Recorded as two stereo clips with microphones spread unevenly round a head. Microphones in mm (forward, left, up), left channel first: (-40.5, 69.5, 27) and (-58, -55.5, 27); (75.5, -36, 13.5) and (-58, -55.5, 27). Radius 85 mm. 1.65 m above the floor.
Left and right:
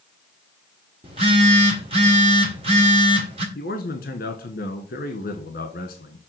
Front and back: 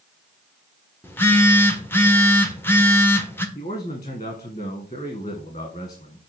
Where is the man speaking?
65° left, 1.4 m.